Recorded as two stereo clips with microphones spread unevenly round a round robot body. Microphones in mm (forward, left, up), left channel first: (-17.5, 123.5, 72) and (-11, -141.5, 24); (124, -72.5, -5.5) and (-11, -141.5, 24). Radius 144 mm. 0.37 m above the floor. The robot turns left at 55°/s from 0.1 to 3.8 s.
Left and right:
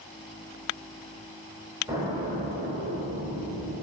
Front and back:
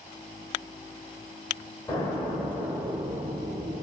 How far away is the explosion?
About 1.0 m.